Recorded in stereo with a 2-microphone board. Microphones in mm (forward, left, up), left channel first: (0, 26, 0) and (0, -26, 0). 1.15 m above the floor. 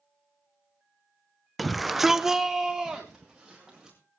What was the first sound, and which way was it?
A shout, centre (ahead or behind).